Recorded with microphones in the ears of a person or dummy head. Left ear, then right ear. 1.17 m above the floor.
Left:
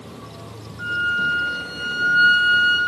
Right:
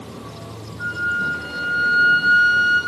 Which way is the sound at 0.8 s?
40° left (ahead or behind).